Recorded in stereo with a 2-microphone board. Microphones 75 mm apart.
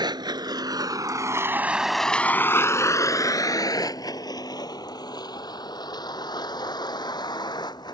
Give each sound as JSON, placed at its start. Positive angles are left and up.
{"t": 0.0, "sound": "a vehicle", "side_deg": -80}